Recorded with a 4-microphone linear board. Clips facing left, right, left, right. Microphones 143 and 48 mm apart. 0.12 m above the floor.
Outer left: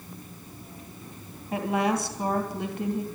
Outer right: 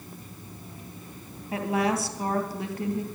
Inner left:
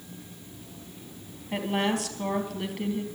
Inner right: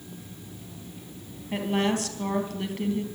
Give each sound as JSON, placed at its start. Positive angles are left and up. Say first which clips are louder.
{"t": 1.5, "sound": "a woman speaking", "louder": "even, inner right 1 dB", "side_deg": -5, "distance_m": 3.0}